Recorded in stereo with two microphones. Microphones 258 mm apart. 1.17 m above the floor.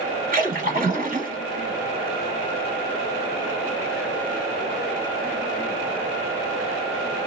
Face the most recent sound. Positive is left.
turn(degrees=-35)  # may be behind; listen again after turning